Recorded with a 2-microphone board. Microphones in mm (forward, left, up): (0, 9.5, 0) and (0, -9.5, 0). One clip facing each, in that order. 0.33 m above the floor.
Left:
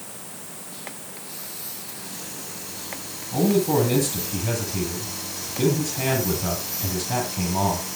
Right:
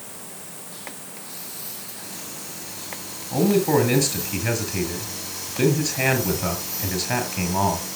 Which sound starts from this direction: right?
A man speaking, at 3.3 s.